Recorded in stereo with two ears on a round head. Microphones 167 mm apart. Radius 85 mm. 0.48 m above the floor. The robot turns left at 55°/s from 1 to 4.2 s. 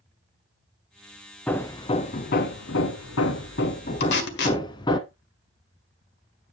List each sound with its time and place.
1.5 s hammering: 175° left, 1.0 m; by 5.0 s 25° left, 1.0 m
4.0 s tape being pulled: 60° left (ahead or behind), 1.8 m